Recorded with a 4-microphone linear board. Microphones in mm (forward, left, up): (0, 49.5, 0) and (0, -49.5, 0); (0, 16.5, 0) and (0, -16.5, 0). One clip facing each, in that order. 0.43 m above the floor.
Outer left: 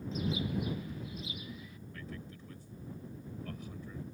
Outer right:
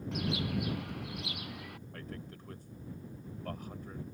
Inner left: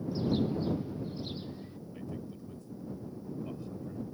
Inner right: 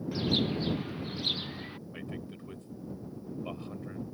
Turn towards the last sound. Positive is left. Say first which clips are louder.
# even, inner left 1 dB
turn(degrees=-55)  # may be behind; listen again after turning